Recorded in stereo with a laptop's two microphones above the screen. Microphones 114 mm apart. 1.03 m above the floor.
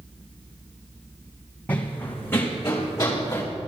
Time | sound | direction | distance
1.7 | running footsteps | 15° left (ahead or behind) | 3 m